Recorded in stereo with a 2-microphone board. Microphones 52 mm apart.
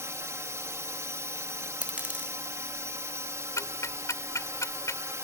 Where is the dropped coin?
30° right (ahead or behind).